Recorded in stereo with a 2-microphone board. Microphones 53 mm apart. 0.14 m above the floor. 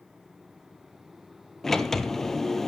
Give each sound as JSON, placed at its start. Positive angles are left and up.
{"t": 1.6, "sound": "a sliding door", "side_deg": 10, "distance_m": 0.6}